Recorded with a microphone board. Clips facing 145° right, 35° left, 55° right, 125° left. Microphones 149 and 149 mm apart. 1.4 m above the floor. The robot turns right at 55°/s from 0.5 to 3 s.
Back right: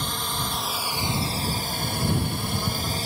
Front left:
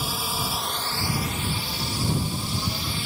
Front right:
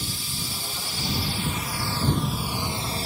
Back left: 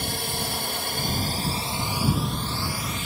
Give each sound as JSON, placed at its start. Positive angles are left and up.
{"t": 0.0, "sound": "a drone", "azimuth_deg": 120}